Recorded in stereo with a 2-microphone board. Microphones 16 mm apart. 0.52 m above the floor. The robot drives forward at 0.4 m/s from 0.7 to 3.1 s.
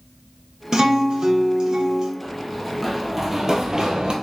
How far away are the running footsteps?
About 1.0 m.